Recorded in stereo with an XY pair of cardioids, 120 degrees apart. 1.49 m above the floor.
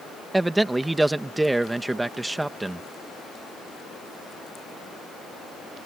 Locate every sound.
0.3 s a man speaking: 10° right